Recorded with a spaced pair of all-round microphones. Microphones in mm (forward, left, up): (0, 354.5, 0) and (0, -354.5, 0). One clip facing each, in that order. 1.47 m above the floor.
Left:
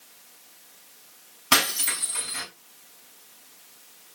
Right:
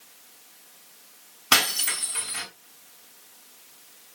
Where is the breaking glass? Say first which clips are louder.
Left 2 dB; 5° left (ahead or behind), 5 m.